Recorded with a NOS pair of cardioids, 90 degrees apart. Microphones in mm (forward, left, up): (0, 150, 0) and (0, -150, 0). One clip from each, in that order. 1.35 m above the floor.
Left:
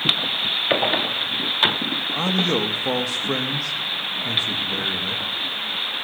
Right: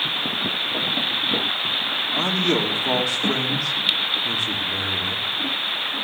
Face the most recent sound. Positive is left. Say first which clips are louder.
# right 1 dB
turn(degrees=10)